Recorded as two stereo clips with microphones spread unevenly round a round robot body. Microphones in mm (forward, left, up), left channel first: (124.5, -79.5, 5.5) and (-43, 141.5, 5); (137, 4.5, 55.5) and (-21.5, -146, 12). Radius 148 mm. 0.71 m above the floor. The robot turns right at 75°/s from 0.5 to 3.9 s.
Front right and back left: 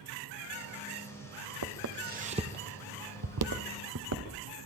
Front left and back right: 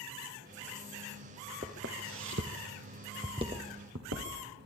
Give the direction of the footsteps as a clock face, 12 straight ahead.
7 o'clock.